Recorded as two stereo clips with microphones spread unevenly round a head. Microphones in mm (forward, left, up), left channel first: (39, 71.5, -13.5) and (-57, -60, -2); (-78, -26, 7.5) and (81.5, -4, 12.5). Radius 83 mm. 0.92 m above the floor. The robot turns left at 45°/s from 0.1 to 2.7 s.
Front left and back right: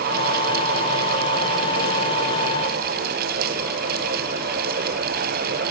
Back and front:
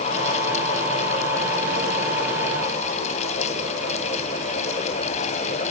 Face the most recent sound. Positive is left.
No sound to turn to.